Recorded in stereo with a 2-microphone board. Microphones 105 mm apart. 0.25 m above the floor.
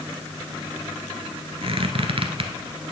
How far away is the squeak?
About 1.3 m.